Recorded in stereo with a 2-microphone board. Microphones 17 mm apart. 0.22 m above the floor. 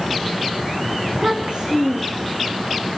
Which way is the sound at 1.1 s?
70° right (ahead or behind).